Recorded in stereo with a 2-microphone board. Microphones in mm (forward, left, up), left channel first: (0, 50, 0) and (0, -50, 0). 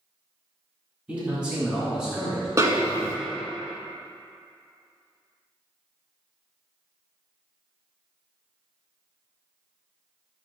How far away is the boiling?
I don't hear boiling.